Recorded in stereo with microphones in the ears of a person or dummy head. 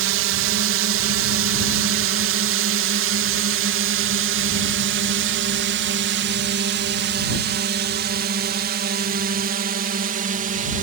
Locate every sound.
0.0 s a drone: 65° right (ahead or behind); by 10.8 s 40° right (ahead or behind)